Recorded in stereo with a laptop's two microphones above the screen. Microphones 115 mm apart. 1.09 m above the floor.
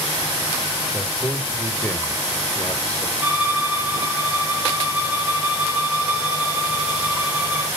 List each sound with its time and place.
0.9 s a man speaking: 10° left (ahead or behind), 3.5 m
3.2 s a violin: 15° right (ahead or behind), 1.4 m